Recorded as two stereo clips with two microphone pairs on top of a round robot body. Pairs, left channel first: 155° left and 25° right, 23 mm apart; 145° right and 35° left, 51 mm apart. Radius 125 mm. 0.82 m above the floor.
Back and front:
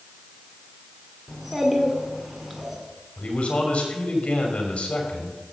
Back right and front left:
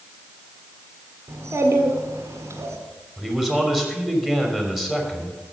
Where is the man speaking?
115° left, 3 m.